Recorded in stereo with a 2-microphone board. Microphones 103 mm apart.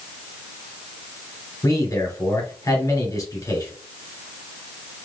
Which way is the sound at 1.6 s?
35° left (ahead or behind).